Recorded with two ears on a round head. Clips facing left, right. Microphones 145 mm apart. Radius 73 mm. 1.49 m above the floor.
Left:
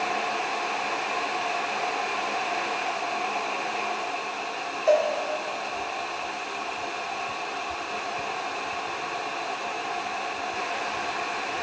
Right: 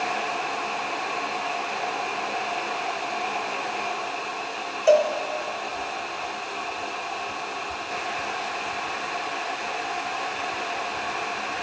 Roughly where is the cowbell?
Right.